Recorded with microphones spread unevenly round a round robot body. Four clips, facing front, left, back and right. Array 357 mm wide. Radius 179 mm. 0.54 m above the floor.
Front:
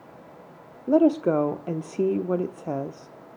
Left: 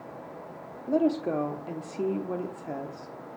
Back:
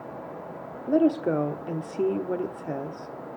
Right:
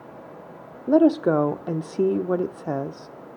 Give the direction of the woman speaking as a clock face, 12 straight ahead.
2 o'clock.